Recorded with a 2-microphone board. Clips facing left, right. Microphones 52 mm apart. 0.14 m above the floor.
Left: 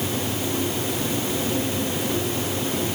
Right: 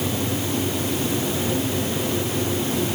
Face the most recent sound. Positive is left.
No sound to turn to.